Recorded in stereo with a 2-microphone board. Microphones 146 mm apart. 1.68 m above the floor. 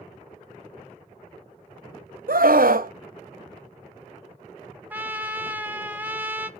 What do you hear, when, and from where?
2.3 s a scream: 75° right (ahead or behind), 0.8 m
4.9 s a trumpet: 10° right (ahead or behind), 0.8 m